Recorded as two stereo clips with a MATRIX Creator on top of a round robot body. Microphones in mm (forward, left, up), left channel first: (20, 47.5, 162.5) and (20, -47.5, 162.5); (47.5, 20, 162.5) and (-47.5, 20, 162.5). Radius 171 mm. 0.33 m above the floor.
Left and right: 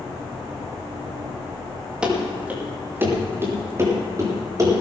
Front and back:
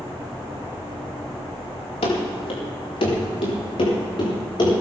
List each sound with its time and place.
2.0 s running footsteps: 10° right, 5 m; by 4.7 s 40° right, 7.5 m